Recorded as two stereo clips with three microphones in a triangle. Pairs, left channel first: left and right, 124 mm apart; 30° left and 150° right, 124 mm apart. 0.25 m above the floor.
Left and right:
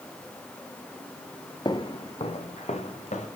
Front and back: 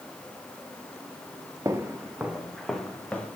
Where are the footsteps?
145° left, 2 m; by 3.3 s 110° left, 3.5 m.